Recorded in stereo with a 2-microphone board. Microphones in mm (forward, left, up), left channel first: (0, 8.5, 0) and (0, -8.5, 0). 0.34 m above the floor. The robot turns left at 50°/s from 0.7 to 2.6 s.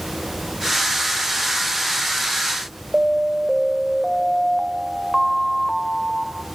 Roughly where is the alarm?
Centre.